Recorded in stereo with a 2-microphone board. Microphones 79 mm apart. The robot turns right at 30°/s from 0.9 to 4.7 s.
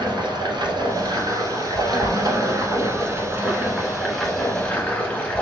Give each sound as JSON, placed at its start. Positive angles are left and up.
{"t": 0.0, "sound": "running water", "azimuth_deg": -95, "distance_m": 1.3}